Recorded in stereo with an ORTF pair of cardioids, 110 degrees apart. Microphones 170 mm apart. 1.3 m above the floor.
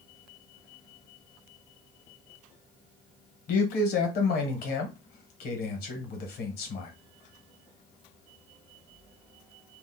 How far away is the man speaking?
About 1.3 m.